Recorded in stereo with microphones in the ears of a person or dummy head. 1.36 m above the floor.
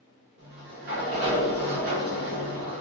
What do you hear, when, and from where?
0.4 s a sliding door: 50° right (ahead or behind), 1.0 m